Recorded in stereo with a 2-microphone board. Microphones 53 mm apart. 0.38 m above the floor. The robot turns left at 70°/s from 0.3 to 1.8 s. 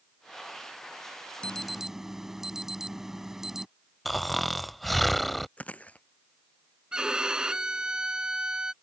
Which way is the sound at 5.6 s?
25° left (ahead or behind).